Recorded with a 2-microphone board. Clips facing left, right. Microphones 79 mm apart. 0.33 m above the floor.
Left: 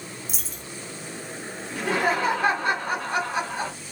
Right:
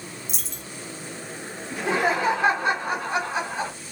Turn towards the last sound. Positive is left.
turn(degrees=-20)  # may be behind; listen again after turning